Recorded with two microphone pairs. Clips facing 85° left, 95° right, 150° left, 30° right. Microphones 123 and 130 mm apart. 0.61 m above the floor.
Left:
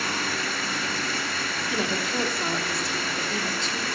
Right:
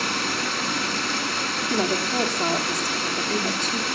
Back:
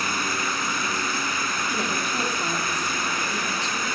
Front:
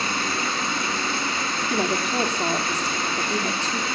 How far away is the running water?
About 2.0 m.